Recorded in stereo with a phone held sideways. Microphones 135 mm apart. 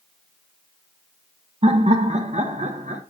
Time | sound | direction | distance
1.6 | laughter | 45° right (ahead or behind) | 1.3 m